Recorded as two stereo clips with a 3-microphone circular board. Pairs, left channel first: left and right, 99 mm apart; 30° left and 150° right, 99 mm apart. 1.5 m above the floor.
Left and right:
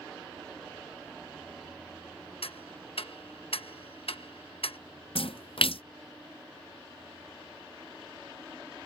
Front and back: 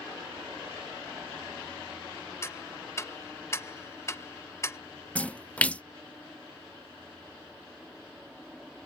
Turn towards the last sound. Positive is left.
turn(degrees=105)